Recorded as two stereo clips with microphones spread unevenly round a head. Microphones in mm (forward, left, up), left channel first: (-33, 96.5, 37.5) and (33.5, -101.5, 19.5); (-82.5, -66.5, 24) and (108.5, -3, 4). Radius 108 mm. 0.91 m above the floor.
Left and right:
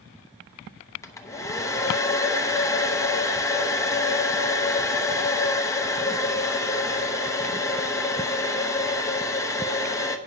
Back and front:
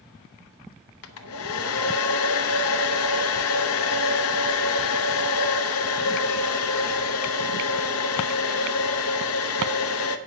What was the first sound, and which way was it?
A hair dryer, 175° right.